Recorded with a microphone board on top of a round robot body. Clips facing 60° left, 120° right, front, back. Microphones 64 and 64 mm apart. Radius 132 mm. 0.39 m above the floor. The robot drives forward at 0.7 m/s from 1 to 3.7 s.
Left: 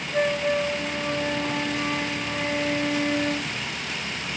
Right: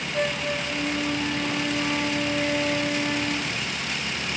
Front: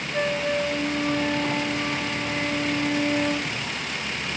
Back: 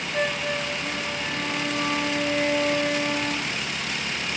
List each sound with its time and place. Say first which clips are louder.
0.1 s a flute: left 4 dB, front 2 dB; 95° left, 3 m; by 3.5 s 125° left, 3.5 m